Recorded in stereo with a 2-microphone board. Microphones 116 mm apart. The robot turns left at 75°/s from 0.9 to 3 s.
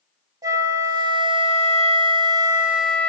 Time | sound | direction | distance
0.4 | a flute | 35° right | 0.7 m